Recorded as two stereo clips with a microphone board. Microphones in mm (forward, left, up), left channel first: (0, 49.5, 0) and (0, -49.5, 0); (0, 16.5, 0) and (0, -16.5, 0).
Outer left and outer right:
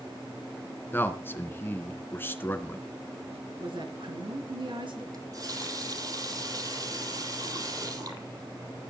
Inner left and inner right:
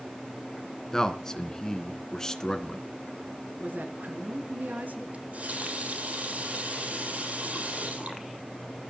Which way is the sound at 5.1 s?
40° right (ahead or behind).